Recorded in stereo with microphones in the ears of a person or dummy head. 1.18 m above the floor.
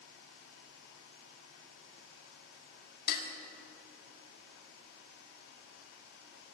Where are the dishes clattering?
60° left (ahead or behind), 1.7 m.